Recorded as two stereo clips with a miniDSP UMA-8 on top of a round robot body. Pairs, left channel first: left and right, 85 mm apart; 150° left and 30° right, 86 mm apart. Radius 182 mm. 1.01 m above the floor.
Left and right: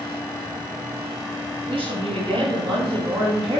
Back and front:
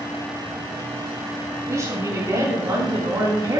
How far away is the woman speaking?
About 8 m.